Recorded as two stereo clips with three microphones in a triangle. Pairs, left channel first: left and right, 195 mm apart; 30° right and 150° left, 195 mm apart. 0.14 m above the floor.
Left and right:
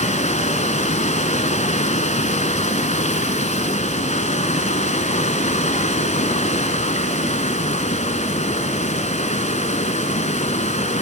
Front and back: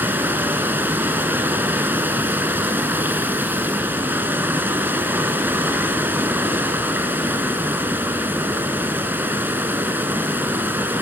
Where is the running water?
75° left, 1.1 m.